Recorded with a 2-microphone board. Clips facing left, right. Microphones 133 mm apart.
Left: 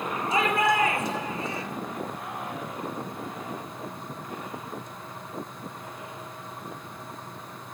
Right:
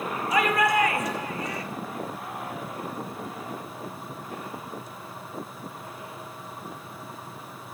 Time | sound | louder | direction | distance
0.3 | a shout | right 1 dB | 30° left (ahead or behind) | 3.5 m